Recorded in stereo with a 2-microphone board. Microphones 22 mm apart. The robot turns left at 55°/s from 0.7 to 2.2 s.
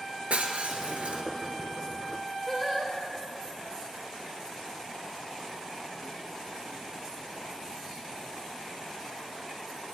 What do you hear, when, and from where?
0.3 s breaking glass: 75° right (ahead or behind), 1.7 m; by 1.2 s 65° right (ahead or behind), 1.7 m
2.5 s singing: 5° left (ahead or behind), 2.5 m